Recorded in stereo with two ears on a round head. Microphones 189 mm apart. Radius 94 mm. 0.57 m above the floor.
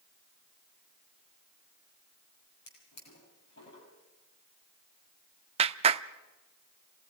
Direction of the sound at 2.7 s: 60° left (ahead or behind).